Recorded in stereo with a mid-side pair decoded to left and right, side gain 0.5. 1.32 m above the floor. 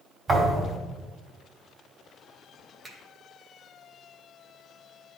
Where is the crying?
I don't hear crying.